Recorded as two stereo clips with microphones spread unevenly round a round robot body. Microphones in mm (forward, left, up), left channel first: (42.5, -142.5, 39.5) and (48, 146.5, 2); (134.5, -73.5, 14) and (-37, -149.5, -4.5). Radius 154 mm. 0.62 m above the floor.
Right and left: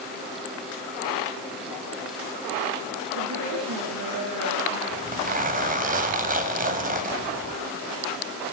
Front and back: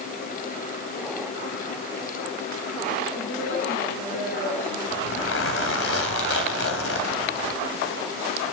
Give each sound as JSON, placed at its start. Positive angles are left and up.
{"t": 3.1, "sound": "a woman speaking", "azimuth_deg": 60, "distance_m": 9.5}
{"t": 4.9, "sound": "a zipper", "azimuth_deg": 25, "distance_m": 4.0}